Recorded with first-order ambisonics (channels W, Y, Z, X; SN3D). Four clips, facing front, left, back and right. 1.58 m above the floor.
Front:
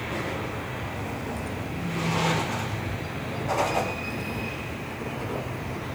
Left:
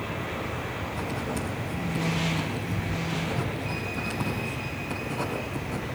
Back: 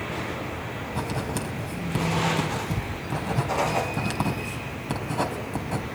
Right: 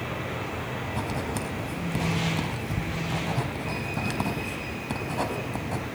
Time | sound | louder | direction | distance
0.9 | writing | right 1 dB, back 3 dB | 155° right | 3.5 m